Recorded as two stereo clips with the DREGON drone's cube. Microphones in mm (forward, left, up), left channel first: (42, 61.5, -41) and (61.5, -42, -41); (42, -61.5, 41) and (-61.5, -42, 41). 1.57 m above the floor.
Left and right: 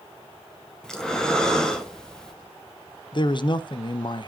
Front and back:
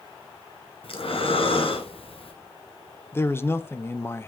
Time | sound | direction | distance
0.8 | breathing | 15° left | 1.4 m
3.1 | a man speaking | 55° left | 0.7 m